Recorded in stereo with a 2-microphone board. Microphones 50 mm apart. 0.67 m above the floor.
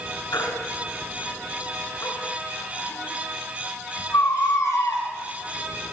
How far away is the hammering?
I don't hear hammering.